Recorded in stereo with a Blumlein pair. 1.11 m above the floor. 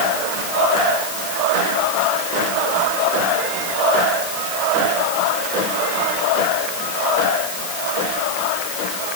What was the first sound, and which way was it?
Only background noise.